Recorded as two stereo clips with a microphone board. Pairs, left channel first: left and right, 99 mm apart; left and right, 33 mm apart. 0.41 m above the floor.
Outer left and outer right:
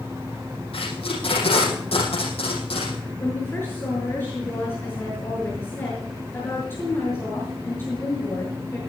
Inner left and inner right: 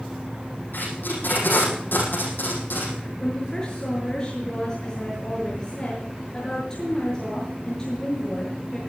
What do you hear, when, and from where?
0.7 s tape being pulled: 70° left (ahead or behind), 7 m
3.2 s a woman speaking: 20° left (ahead or behind), 6.5 m